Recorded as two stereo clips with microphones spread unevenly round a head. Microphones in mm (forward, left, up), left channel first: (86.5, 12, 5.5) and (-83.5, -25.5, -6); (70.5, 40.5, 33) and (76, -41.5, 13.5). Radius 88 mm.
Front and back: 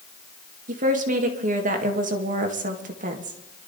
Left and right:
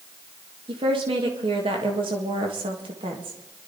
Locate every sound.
0.7 s a woman speaking: 120° right, 1.6 m